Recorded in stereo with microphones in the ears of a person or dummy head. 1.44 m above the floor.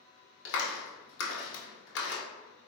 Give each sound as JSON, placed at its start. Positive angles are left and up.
{"t": 0.5, "sound": "a clap", "side_deg": 65, "distance_m": 1.0}